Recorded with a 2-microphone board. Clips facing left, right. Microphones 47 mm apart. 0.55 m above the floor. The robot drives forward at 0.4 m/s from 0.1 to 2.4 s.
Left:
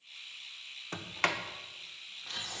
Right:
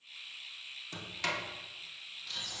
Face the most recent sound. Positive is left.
turn(degrees=40)  # may be behind; listen again after turning